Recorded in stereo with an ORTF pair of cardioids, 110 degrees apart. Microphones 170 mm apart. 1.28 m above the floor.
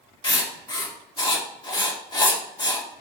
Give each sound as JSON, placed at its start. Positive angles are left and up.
{"t": 0.2, "sound": "writing", "azimuth_deg": 25, "distance_m": 1.8}